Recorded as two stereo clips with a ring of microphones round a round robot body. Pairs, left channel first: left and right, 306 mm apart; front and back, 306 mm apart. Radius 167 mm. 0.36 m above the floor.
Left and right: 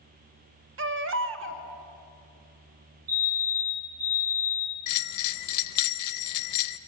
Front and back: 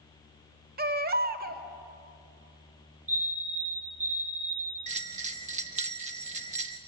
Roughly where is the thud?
I don't hear a thud.